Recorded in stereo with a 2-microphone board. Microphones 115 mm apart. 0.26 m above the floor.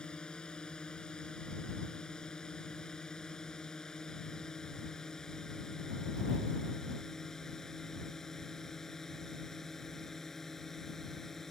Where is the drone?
10° left (ahead or behind); by 11.5 s 5° left (ahead or behind).